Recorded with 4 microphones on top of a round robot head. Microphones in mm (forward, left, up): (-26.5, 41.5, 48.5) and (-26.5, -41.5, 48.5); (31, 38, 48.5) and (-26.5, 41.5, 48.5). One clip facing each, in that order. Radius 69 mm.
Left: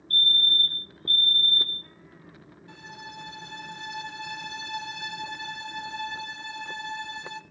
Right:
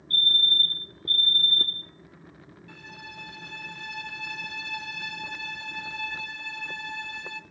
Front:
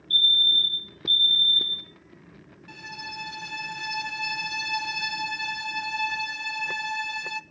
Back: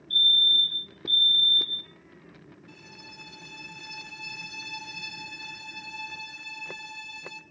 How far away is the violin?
About 0.7 m.